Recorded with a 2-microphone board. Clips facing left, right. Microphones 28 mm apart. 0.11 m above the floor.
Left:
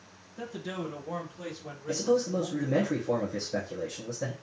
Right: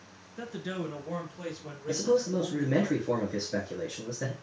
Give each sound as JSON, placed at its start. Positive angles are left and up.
{"t": 0.4, "sound": "a man speaking", "side_deg": -20, "distance_m": 1.4}
{"t": 1.9, "sound": "a man speaking", "side_deg": -35, "distance_m": 1.5}